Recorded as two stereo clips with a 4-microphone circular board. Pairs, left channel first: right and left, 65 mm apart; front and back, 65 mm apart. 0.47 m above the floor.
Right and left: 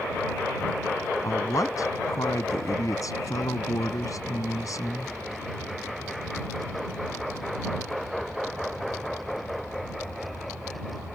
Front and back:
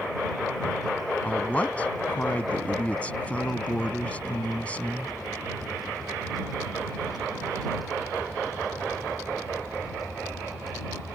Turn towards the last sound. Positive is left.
turn(degrees=-70)